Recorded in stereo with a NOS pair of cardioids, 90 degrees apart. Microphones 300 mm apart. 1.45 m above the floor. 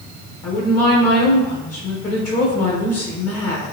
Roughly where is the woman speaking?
Ahead left.